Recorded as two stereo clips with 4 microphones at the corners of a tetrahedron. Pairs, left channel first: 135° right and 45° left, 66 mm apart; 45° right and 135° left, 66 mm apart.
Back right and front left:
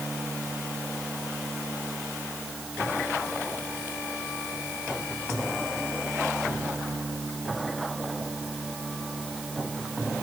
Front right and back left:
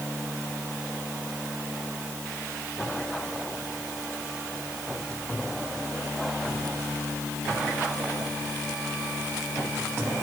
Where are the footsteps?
I don't hear footsteps.